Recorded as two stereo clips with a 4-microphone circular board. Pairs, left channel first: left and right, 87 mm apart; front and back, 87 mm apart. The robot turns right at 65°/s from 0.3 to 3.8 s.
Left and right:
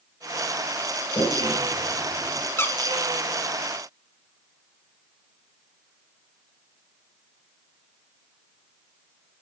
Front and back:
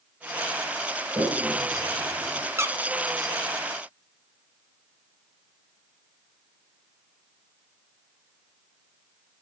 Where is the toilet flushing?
120° left, 6.5 m; by 2.5 s 155° right, 6.5 m.